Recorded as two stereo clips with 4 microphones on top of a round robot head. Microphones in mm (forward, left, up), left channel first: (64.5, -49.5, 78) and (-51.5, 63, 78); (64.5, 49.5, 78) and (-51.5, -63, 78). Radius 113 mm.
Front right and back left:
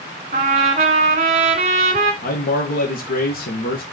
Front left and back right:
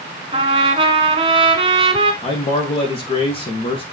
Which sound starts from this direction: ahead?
A man speaking, at 2.2 s.